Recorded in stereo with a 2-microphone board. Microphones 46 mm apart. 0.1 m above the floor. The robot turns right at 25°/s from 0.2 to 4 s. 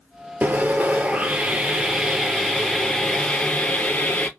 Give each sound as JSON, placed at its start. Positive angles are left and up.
{"t": 0.4, "sound": "sawing", "azimuth_deg": -50, "distance_m": 0.6}